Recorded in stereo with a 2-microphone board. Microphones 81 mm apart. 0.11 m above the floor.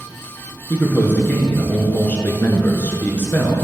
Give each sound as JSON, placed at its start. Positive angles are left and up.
{"t": 0.7, "sound": "a man speaking", "side_deg": 20, "distance_m": 1.2}